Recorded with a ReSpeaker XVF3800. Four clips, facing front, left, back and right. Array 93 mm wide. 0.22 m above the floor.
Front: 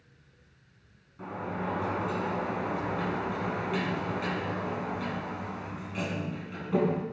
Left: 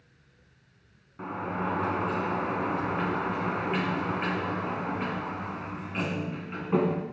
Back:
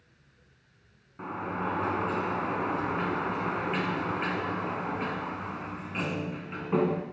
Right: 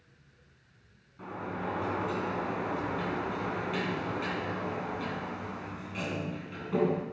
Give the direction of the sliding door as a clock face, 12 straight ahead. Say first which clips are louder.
Left 5 dB, back 2 dB; 8 o'clock.